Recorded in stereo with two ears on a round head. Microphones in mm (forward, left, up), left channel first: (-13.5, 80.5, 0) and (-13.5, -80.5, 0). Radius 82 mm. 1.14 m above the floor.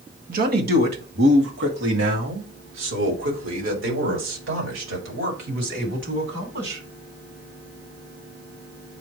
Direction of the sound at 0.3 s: 50° right (ahead or behind).